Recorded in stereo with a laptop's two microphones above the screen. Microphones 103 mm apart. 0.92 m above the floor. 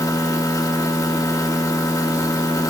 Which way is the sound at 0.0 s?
30° left (ahead or behind).